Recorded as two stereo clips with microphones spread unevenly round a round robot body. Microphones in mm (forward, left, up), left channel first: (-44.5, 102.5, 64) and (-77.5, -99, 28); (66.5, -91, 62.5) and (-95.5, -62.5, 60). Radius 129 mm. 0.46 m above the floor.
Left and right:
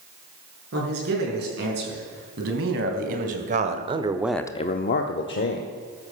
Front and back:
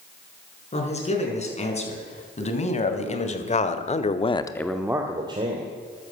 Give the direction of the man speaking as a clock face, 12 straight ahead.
2 o'clock.